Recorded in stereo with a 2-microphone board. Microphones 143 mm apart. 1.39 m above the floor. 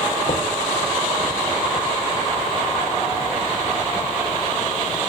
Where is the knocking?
55° left (ahead or behind), 2 m.